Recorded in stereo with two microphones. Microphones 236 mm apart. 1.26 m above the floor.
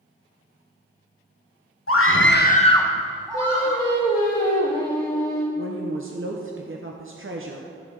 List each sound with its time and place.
1.9 s a scream: 70° left (ahead or behind), 1.0 m; by 3.8 s 30° right (ahead or behind), 1.2 m
3.3 s singing: 15° left (ahead or behind), 3 m
5.6 s a woman speaking: 60° right (ahead or behind), 0.8 m